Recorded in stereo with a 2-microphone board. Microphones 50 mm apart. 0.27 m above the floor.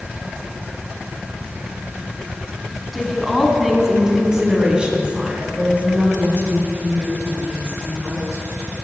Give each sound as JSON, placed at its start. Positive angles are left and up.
{"t": 2.9, "sound": "a woman speaking", "side_deg": 0, "distance_m": 3.0}